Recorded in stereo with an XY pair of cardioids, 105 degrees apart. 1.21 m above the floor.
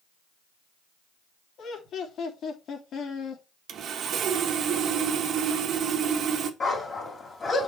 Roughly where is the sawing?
Ahead right.